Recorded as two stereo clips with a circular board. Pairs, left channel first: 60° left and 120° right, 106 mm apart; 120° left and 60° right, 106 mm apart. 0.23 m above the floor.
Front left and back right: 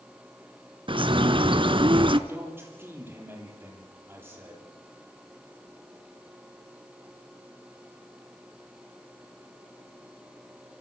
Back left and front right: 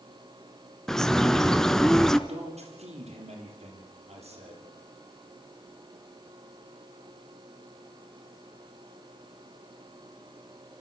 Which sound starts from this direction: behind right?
A bird, at 0.9 s.